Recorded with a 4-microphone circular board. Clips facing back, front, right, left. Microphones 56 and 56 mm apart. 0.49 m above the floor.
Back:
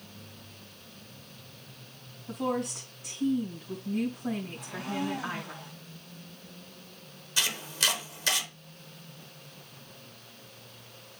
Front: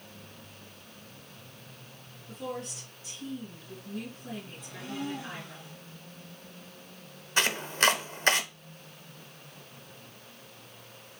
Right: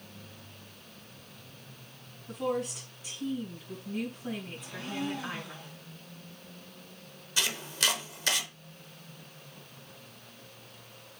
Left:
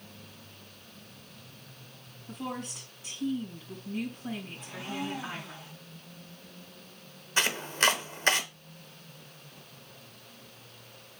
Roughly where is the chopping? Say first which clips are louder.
Front 5 dB, left 4 dB; ahead left.